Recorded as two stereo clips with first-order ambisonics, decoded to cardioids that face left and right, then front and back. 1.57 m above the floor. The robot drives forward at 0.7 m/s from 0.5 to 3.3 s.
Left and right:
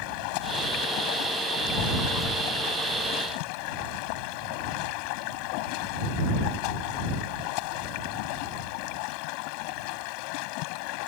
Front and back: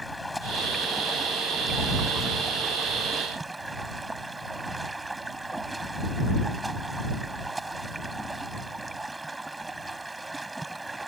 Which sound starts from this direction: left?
Running water, at 0.0 s.